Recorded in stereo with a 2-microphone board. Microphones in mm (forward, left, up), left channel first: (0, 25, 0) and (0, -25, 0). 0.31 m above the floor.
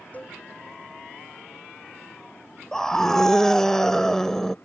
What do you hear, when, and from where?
0.1 s a cowbell: 30° left (ahead or behind)
2.7 s a scream: 10° left (ahead or behind)